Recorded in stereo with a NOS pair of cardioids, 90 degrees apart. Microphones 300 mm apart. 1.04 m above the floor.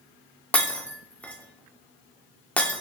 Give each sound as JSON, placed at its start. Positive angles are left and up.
{"t": 0.5, "sound": "breaking glass", "azimuth_deg": 5, "distance_m": 1.8}